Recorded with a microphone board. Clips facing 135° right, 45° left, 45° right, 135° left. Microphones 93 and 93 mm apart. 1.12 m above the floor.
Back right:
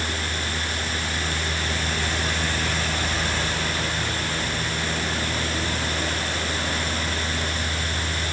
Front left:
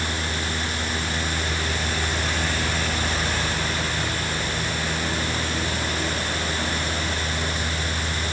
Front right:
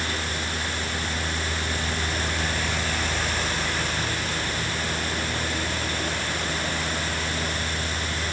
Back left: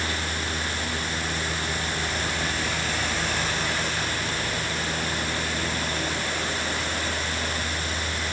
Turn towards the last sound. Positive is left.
No sound to turn to.